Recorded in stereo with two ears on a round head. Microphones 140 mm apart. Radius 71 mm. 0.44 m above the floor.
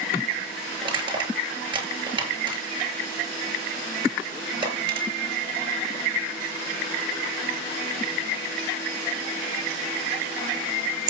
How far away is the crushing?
About 9 m.